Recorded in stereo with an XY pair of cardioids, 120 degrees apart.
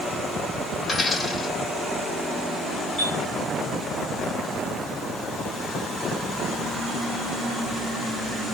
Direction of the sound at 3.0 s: 35° right.